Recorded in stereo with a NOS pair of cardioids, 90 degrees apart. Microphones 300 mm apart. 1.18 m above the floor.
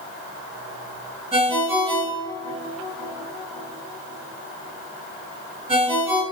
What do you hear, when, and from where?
1.3 s a ringtone: 20° right, 3.5 m